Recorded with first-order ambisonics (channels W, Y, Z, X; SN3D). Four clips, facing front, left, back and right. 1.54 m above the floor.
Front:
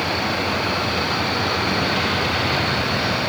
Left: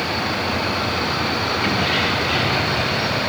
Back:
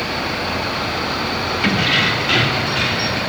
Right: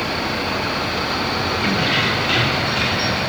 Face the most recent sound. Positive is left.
turn(degrees=-145)